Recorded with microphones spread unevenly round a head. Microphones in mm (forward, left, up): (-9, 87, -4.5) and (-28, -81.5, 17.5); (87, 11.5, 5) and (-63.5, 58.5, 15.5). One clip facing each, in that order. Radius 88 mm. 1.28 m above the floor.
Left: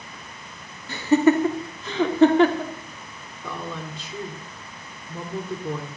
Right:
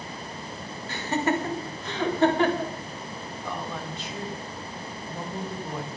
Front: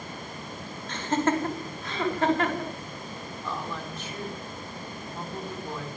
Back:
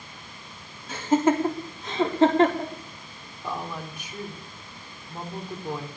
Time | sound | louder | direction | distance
0.9 | laughter | left 9 dB, back 4 dB | 80° left | 3.5 m
3.4 | a woman speaking | left 2 dB, back 2 dB | 85° left | 3.5 m